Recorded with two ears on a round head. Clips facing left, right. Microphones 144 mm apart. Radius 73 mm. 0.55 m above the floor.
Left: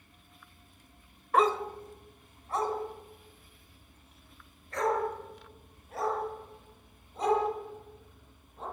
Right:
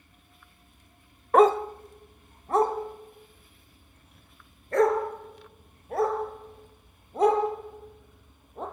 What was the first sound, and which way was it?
A dog barking, 40° right (ahead or behind).